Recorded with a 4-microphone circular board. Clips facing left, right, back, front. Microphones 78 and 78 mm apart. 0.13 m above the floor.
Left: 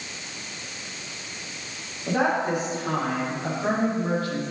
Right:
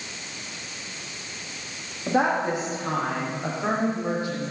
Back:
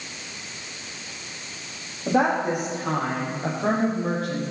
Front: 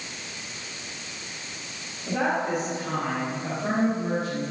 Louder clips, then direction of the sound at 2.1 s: Right 1 dB, back 4 dB; 155° right.